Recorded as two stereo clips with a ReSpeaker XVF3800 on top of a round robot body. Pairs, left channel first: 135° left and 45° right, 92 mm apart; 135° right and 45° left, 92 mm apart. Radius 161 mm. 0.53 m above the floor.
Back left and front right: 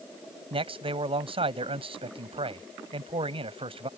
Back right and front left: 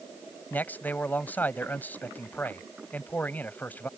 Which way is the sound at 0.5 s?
65° right.